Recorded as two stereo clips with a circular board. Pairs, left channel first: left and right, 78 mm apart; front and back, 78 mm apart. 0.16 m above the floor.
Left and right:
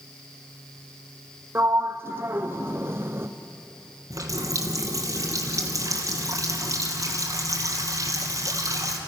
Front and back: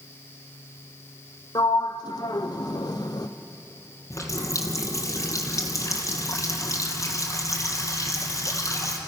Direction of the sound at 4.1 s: 50° right.